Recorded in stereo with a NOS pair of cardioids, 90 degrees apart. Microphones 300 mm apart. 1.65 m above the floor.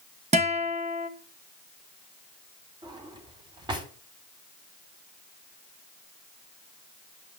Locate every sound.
0.3 s a guitar: 20° right, 2.5 m
2.8 s a drawer: 15° right, 3.5 m